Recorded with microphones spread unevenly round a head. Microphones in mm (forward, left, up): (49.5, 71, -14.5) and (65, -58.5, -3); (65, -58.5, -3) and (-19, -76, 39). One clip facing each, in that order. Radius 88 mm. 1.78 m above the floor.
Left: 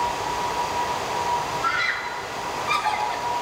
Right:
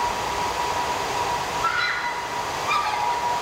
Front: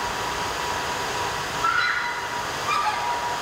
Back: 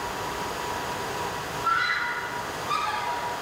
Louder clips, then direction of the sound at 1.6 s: Right 2 dB, front 2 dB; 60° left.